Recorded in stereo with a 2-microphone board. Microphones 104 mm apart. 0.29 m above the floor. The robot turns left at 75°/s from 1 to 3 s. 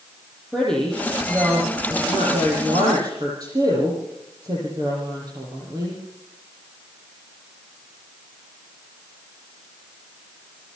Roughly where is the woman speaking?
Ahead.